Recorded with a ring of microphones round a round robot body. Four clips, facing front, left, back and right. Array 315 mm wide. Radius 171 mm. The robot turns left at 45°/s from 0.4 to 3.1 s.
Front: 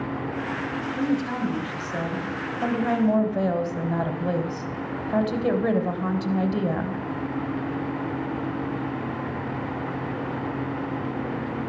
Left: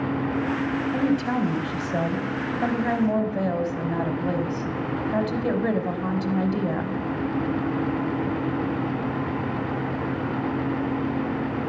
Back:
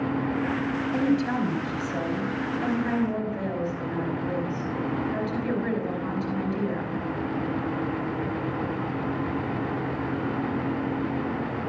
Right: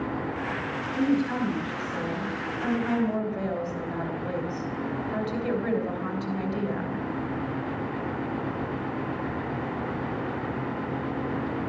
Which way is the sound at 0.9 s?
125° left.